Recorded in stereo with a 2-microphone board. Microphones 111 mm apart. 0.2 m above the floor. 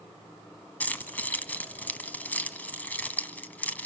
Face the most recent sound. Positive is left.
turn(degrees=15)  # may be behind; listen again after turning